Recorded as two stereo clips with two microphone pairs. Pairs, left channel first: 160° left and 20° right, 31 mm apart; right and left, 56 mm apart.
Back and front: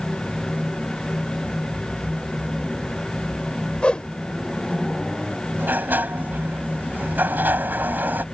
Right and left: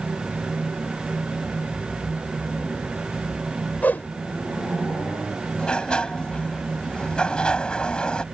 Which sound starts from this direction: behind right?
A whoosh, at 3.8 s.